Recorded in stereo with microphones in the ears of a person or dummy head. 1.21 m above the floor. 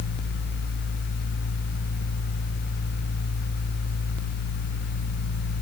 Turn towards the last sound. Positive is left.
No sound to turn to.